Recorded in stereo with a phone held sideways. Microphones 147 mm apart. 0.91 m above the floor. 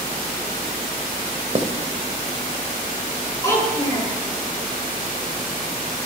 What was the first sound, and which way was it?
Writing, 45° right (ahead or behind).